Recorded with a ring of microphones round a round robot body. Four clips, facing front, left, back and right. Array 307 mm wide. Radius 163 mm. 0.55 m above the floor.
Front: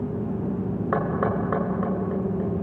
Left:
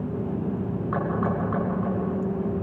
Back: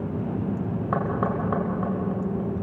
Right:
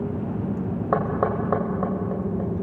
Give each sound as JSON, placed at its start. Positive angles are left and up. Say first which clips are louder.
{"t": 0.9, "sound": "knocking", "louder": "right 4 dB, front 1 dB", "azimuth_deg": -70, "distance_m": 3.0}